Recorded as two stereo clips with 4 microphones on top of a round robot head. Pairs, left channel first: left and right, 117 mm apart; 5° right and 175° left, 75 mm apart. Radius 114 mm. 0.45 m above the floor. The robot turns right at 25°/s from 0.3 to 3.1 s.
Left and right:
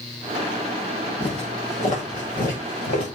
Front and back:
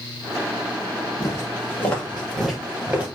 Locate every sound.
1.2 s footsteps: 45° left, 4.5 m; by 3.1 s 110° left, 5 m